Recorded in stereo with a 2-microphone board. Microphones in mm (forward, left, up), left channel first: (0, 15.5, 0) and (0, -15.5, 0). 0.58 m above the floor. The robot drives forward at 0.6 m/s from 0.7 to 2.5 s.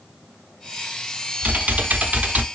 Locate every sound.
1.4 s typing on a keyboard: 60° right (ahead or behind), 0.8 m; by 2.5 s 55° right (ahead or behind), 0.9 m